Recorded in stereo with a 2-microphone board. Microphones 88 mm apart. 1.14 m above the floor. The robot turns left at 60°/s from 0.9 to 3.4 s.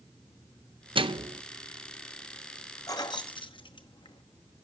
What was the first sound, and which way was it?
A microwave, 85° right.